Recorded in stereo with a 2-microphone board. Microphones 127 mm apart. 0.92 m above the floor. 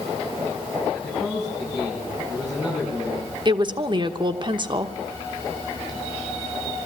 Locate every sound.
0.9 s a man speaking: 5° right (ahead or behind), 9.5 m
3.5 s a woman speaking: 40° right (ahead or behind), 1.0 m